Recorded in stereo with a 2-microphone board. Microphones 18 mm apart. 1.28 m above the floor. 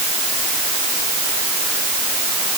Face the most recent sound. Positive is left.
No sound to turn to.